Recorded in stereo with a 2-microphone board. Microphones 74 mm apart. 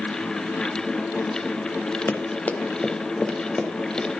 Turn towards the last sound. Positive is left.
turn(degrees=5)  # may be behind; listen again after turning